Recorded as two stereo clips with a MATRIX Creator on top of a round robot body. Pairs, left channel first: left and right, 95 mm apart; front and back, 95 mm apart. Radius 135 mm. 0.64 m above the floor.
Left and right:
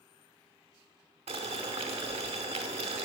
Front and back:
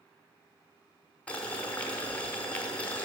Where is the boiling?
75° right, 0.8 m.